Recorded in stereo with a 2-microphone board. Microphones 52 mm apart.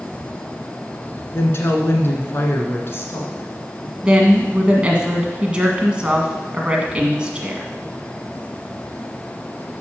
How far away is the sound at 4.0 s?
About 1.6 m.